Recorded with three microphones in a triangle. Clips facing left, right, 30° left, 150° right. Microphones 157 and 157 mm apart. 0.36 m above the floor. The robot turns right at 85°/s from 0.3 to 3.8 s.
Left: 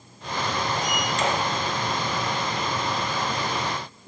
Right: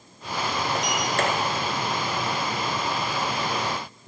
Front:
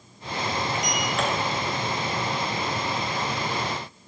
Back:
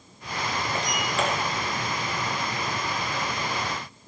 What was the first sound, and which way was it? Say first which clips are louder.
A sliding door: right 1 dB, front 1 dB; 100° right.